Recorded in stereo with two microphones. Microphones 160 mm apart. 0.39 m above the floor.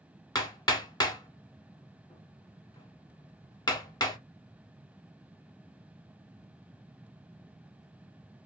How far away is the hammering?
About 0.8 m.